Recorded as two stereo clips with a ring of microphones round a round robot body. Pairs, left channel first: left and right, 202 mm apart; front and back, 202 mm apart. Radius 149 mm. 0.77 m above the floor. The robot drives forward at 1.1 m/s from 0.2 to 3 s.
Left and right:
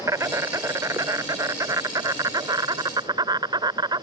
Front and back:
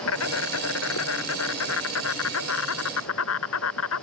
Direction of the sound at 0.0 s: 15° right.